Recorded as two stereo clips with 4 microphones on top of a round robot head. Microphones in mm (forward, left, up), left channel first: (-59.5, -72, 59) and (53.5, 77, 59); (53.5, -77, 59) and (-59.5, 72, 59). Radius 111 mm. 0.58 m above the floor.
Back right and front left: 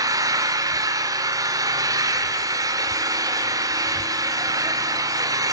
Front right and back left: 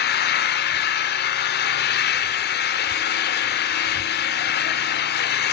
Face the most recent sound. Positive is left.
turn(degrees=-20)